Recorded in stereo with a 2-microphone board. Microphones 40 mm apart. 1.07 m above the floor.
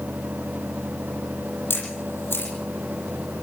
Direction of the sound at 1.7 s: 85° left.